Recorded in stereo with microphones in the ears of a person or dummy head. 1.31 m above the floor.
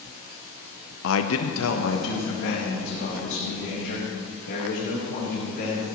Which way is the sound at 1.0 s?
65° left (ahead or behind).